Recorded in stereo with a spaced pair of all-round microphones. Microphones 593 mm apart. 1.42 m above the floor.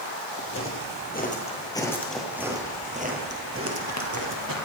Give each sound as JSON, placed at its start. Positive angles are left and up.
{"t": 0.4, "sound": "footsteps", "side_deg": 25, "distance_m": 2.0}